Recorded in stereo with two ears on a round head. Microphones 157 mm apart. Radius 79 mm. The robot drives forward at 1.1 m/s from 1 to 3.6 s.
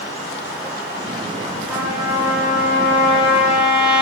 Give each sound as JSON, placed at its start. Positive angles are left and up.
{"t": 1.7, "sound": "a trumpet", "side_deg": -10, "distance_m": 4.0}